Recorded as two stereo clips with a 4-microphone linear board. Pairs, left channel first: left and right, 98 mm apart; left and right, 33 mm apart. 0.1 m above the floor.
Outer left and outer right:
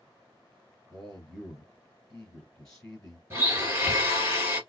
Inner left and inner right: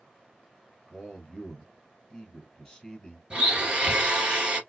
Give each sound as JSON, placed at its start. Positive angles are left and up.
{"t": 0.9, "sound": "a man speaking", "side_deg": 10, "distance_m": 1.8}
{"t": 3.3, "sound": "a blender", "side_deg": -25, "distance_m": 2.0}